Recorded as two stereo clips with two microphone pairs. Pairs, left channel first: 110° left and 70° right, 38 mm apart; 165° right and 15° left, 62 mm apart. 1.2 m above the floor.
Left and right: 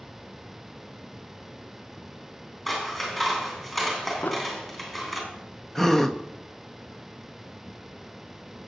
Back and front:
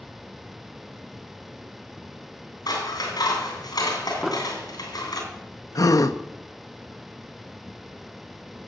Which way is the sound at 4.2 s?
95° left.